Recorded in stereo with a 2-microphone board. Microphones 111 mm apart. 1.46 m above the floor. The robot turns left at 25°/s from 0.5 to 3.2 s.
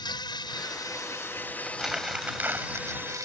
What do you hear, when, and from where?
0.0 s an insect: 45° left; by 3.3 s 25° right
1.6 s crumpling: centre (ahead or behind); by 3.3 s 35° right (ahead or behind)